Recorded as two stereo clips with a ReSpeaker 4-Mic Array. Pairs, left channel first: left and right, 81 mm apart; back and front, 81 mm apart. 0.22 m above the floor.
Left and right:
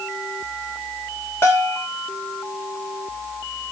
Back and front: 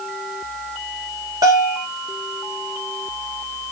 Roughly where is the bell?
Ahead left.